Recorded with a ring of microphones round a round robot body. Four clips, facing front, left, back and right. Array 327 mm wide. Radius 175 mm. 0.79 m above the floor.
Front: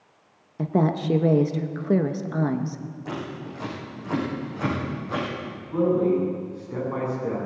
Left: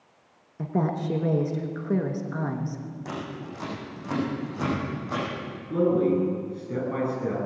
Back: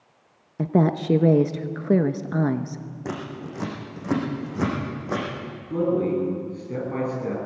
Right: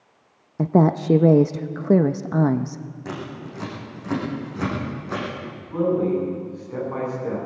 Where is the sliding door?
I don't hear a sliding door.